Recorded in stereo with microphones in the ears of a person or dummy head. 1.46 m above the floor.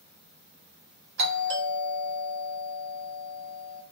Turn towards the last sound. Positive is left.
turn(degrees=-50)  # may be behind; listen again after turning